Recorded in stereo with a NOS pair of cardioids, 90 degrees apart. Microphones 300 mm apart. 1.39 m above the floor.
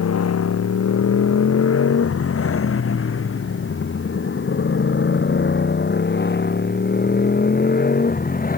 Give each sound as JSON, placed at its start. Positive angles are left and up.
{"t": 0.0, "sound": "a motorcycle", "azimuth_deg": 55}